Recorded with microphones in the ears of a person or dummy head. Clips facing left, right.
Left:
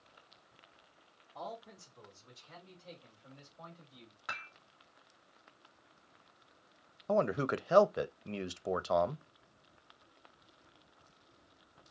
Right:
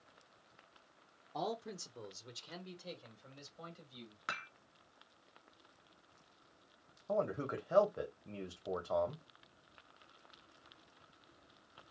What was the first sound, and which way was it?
A man speaking, 70° right (ahead or behind).